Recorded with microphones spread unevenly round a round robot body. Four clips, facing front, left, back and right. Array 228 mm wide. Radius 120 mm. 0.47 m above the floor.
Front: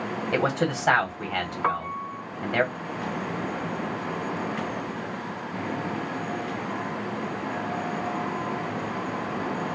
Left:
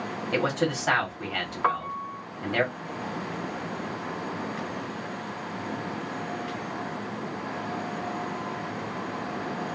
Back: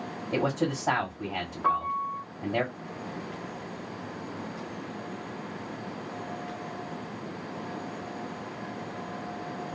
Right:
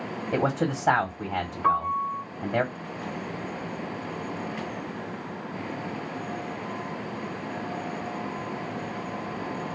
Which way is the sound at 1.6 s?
45° left.